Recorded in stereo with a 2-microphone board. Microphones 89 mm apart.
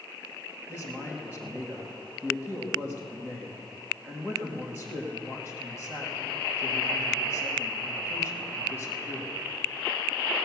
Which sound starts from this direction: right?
A man speaking, at 0.7 s.